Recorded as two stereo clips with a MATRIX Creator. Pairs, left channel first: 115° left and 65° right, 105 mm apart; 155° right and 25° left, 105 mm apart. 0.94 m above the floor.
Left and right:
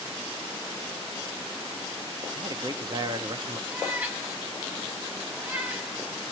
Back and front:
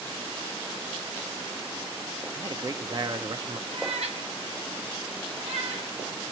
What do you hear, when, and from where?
2.4 s a man speaking: 25° right, 1.0 m
3.7 s a cat meowing: 10° left, 2.5 m